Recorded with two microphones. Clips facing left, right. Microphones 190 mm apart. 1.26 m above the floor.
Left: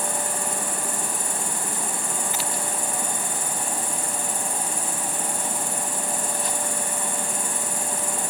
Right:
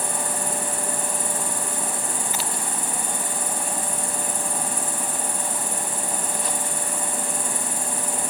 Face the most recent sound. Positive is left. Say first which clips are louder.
# even
turn(degrees=-35)  # may be behind; listen again after turning